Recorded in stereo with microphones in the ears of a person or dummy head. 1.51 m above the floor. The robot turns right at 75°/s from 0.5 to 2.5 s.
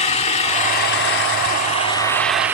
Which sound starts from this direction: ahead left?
An engine running, at 0.0 s.